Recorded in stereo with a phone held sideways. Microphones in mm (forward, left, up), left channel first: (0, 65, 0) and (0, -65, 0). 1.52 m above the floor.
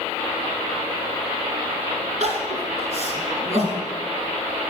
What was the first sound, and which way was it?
Crying, 60° right (ahead or behind).